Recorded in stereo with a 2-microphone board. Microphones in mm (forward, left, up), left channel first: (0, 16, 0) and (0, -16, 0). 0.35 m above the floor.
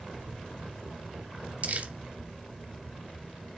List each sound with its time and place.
1.6 s crumpling: 50° right (ahead or behind), 0.5 m